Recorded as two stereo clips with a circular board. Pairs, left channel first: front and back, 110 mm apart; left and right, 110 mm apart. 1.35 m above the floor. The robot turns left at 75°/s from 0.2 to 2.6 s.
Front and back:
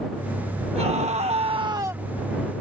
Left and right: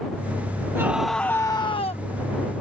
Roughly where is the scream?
Behind right.